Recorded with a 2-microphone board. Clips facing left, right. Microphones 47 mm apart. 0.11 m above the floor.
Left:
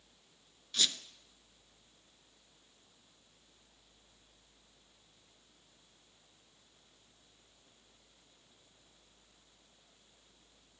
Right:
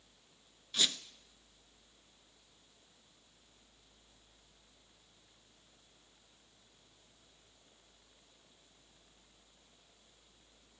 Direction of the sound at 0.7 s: 10° right (ahead or behind).